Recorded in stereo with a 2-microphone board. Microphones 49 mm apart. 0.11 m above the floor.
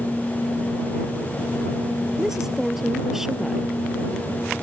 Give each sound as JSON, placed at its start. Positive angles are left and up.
{"t": 2.2, "sound": "a woman speaking", "side_deg": -10}